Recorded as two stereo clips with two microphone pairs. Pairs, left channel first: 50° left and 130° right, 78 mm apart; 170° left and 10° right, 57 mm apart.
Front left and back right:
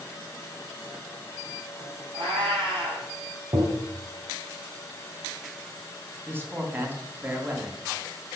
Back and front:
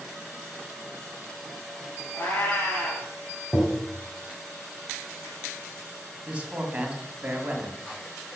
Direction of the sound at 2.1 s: 140° right.